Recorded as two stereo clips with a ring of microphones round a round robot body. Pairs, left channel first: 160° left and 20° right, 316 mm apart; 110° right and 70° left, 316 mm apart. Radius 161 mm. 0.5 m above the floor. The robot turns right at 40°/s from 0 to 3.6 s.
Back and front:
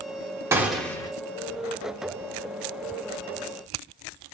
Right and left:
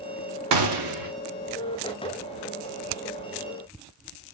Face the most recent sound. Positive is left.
turn(degrees=180)